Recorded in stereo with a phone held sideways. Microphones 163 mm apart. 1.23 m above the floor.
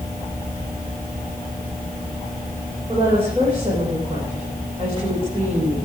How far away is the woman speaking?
About 4.5 m.